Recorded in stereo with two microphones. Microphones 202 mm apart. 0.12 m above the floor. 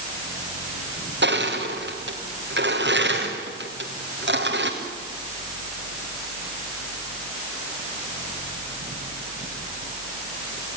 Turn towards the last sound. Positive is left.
turn(degrees=-55)  # may be behind; listen again after turning